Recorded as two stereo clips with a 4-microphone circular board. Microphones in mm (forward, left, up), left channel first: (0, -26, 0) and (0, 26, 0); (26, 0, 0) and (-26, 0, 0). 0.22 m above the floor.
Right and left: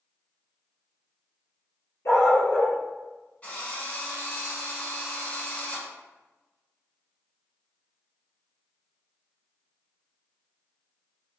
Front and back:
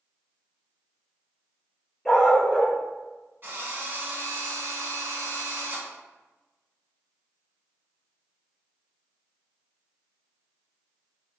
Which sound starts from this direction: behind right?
A drill, at 3.4 s.